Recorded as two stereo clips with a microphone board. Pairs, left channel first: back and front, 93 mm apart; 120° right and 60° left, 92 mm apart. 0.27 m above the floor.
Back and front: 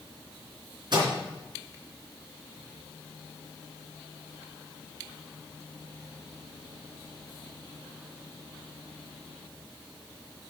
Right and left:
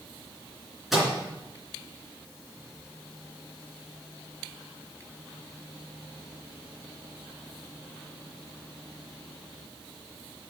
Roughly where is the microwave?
Ahead right.